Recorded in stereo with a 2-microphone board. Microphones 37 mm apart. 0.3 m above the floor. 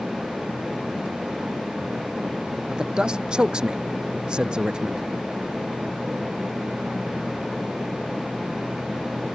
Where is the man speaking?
25° right (ahead or behind).